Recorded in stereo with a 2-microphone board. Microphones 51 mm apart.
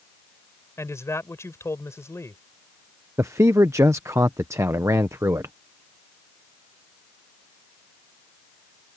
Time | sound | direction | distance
0.8 | a man speaking | 65° left (ahead or behind) | ?
3.2 | a man speaking | 70° right (ahead or behind) | ?